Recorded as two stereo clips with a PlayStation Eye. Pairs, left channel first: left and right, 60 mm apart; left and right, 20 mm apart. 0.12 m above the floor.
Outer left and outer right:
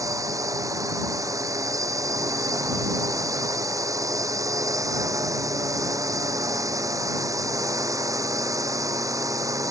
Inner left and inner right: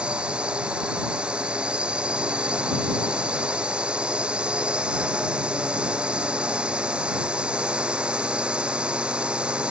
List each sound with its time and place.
0.0 s a drone: 70° right (ahead or behind)